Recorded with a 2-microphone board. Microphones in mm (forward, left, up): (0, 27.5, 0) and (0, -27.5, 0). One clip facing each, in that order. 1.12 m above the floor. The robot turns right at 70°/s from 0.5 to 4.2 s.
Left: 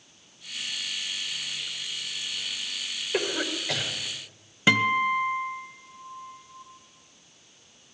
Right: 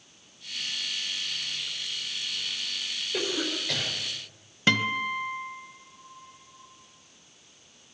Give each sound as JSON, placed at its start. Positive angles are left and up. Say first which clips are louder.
{"t": 3.1, "sound": "a cough", "louder": "left 2 dB", "side_deg": 55, "distance_m": 5.0}
{"t": 4.7, "sound": "a guitar", "louder": "left 4 dB", "side_deg": 10, "distance_m": 1.0}